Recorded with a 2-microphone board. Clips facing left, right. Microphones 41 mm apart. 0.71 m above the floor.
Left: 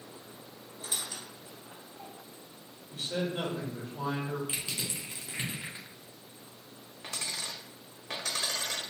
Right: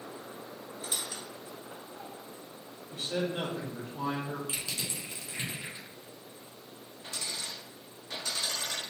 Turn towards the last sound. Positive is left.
turn(degrees=65)  # may be behind; listen again after turning